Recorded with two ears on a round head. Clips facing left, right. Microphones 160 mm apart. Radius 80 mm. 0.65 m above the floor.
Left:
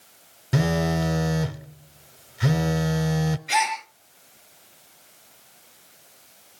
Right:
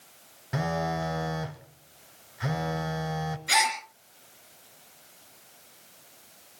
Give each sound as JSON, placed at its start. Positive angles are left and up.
{"t": 0.5, "sound": "a phone buzzing", "side_deg": 40, "distance_m": 0.8}
{"t": 3.5, "sound": "a gasp", "side_deg": -70, "distance_m": 3.0}